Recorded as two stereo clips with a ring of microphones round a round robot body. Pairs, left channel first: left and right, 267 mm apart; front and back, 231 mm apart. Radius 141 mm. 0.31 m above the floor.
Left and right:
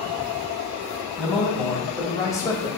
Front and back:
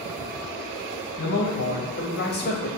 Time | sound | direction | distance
1.2 | a man speaking | straight ahead | 3 m